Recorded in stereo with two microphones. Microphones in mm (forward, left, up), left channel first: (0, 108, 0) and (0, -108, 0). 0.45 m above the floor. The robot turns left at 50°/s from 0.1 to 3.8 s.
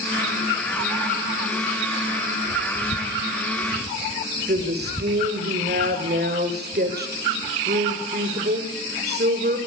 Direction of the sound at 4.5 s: 50° right (ahead or behind).